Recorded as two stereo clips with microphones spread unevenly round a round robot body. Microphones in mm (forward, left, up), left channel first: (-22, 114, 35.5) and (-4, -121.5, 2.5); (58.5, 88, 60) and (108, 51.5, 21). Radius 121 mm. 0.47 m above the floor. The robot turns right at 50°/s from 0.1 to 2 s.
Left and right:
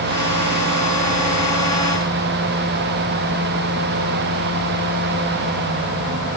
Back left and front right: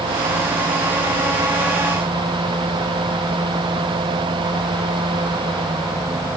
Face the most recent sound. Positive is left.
No sound to turn to.